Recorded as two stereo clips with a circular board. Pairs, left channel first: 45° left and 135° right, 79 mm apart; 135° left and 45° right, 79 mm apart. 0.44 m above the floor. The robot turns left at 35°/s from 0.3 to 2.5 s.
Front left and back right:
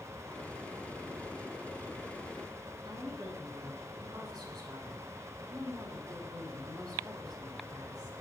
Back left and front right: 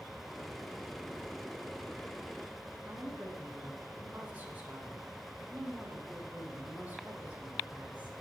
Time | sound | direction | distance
2.9 | a woman speaking | 110° right | 4 m